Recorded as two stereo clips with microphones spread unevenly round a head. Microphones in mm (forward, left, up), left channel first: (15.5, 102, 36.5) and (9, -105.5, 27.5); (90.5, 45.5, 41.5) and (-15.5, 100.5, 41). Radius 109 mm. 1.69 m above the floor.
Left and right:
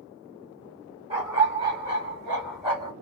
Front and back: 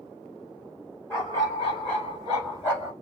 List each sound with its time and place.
1.1 s a dog barking: 65° right, 1.4 m; by 2.9 s 35° right, 2.0 m